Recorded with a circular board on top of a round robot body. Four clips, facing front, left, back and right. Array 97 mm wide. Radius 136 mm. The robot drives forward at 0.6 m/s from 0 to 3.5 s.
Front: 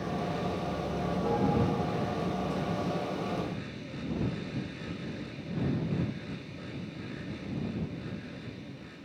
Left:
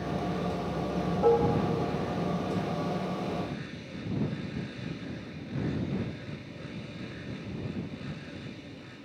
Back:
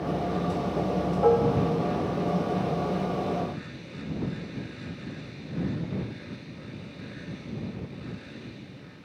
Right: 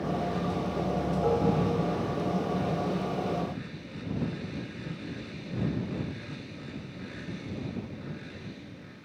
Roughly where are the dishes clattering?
Behind.